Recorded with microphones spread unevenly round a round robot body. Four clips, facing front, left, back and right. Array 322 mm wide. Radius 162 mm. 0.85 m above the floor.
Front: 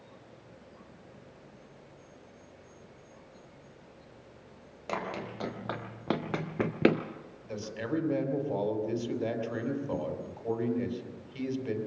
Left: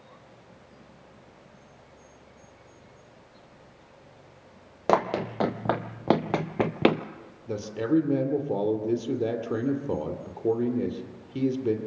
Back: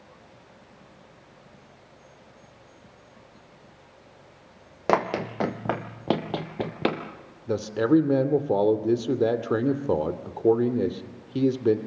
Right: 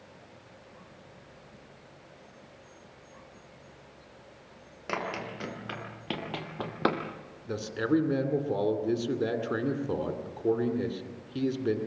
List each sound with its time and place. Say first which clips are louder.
4.9 s running footsteps: left 10 dB, back 12 dB; 140° left, 2 m; by 7.0 s 40° left, 1.1 m
7.5 s a man speaking: left 2 dB, back 13 dB; 175° left, 2.5 m